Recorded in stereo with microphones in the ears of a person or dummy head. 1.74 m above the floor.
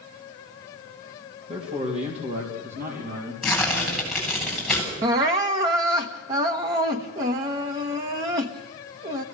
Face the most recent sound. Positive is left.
turn(degrees=-20)  # may be behind; listen again after turning